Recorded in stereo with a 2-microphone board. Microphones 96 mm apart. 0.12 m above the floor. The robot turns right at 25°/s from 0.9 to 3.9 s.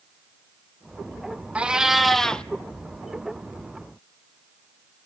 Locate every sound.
1.6 s a cat meowing: 10° right (ahead or behind), 0.5 m; by 2.5 s 10° left (ahead or behind), 0.5 m